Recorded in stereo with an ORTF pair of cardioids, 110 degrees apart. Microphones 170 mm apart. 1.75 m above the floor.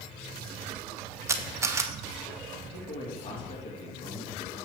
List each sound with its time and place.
1.3 s a camera shutter: 15° right, 0.9 m
2.6 s a man speaking: 30° left, 3.5 m